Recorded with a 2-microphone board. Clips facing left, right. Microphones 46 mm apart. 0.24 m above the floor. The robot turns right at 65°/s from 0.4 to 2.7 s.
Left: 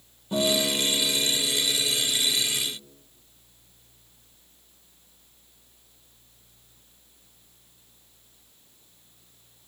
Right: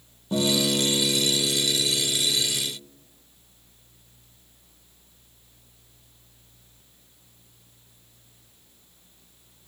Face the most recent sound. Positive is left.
turn(degrees=-15)